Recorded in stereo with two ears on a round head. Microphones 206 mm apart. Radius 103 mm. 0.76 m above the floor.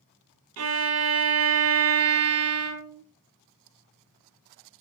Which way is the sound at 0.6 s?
70° right (ahead or behind).